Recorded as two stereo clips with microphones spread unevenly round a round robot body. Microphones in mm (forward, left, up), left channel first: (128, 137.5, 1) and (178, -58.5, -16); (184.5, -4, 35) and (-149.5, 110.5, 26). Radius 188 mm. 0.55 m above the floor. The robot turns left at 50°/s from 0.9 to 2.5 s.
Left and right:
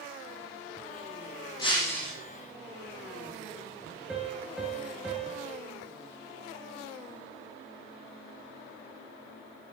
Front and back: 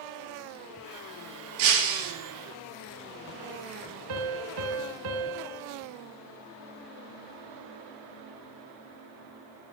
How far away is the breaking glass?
About 5 m.